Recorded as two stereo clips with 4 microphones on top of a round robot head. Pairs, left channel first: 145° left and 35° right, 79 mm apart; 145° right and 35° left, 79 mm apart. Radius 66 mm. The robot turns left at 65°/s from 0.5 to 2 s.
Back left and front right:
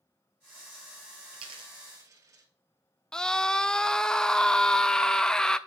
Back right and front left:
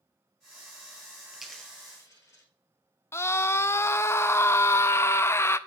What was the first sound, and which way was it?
A dropped coin, 45° right.